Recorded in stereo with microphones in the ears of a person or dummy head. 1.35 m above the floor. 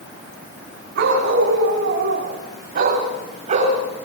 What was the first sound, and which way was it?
A dog barking, 70° right (ahead or behind).